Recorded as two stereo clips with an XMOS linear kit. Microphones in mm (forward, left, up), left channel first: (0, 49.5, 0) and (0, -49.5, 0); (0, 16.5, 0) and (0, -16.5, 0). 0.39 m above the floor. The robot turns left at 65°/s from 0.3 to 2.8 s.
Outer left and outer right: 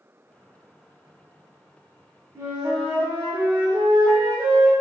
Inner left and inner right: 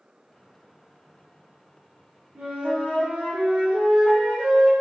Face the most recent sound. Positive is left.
turn(degrees=-30)  # may be behind; listen again after turning